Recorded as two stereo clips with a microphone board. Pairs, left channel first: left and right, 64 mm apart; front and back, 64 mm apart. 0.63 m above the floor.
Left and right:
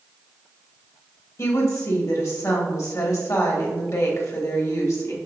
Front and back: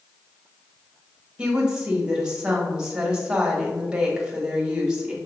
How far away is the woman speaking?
About 1.3 m.